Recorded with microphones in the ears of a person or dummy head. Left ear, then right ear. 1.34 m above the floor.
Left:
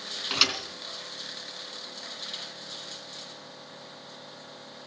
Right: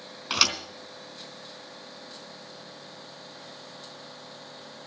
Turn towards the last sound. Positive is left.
turn(degrees=-20)  # may be behind; listen again after turning